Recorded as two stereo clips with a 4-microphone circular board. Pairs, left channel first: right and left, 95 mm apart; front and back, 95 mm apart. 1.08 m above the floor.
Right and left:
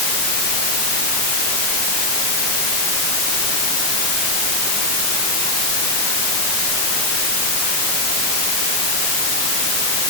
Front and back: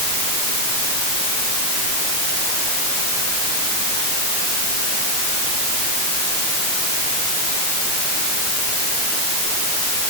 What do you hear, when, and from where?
Only background noise.